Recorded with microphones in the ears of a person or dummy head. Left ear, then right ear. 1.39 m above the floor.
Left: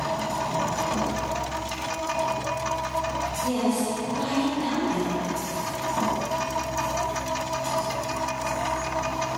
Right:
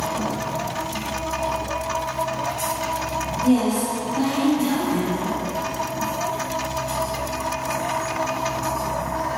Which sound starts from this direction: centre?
A woman speaking, at 3.4 s.